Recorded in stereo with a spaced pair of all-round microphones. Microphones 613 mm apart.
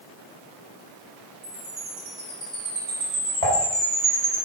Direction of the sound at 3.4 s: 75° right (ahead or behind).